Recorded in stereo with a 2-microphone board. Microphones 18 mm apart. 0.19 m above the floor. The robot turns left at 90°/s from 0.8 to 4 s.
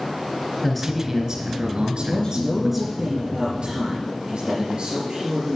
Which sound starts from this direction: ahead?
A man speaking, at 0.6 s.